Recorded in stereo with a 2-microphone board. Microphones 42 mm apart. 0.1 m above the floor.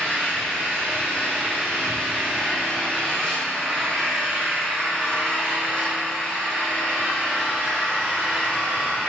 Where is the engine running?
25° left (ahead or behind), 3.5 m.